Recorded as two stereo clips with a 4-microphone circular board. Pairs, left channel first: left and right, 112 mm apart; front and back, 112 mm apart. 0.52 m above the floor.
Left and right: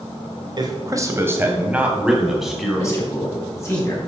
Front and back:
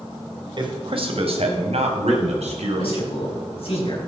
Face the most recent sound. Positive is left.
turn(degrees=25)